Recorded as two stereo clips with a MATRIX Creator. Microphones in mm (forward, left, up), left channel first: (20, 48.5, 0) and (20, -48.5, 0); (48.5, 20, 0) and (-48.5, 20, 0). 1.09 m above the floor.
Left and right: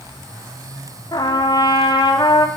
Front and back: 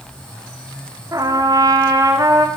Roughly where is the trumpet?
Behind left.